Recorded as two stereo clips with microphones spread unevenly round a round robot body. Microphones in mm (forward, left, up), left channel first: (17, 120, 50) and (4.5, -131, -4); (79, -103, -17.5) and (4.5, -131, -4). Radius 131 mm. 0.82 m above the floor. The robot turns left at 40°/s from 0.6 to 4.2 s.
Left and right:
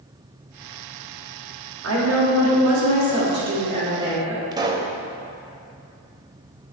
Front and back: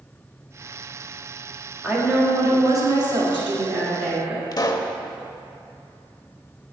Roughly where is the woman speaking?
Right.